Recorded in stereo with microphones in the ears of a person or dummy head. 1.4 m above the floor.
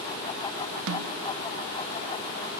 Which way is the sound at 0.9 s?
70° right (ahead or behind).